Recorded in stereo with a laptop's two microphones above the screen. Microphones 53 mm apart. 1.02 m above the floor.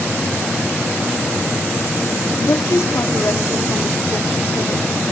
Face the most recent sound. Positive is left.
turn(degrees=65)  # may be behind; listen again after turning